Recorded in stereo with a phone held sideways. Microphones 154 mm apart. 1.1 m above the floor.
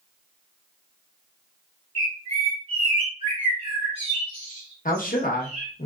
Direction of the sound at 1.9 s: 40° right (ahead or behind).